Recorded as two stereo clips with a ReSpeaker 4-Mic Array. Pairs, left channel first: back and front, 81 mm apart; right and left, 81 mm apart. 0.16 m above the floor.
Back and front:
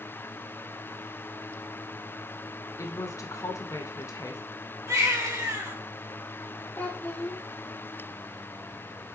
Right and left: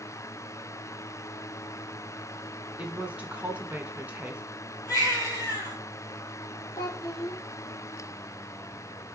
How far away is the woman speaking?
About 1.5 m.